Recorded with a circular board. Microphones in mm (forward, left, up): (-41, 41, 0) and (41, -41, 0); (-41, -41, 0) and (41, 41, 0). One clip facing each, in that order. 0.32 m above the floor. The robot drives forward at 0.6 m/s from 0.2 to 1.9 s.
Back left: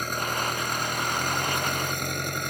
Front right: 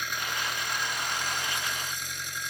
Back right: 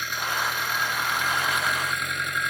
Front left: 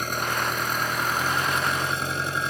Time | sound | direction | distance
0.0 | an engine running | 90° left | ?